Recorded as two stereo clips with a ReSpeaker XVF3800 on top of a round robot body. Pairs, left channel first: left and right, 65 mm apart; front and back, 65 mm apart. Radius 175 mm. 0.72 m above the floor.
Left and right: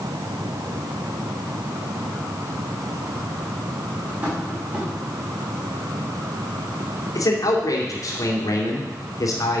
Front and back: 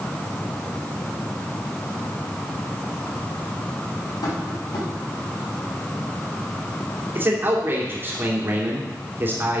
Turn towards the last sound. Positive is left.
turn(degrees=120)